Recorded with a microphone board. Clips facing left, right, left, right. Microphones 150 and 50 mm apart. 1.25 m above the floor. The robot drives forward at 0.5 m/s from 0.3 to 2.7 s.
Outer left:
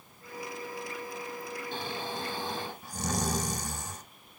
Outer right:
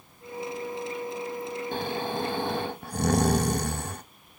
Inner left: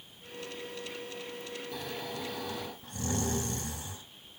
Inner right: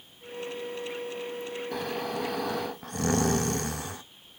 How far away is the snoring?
About 1.5 m.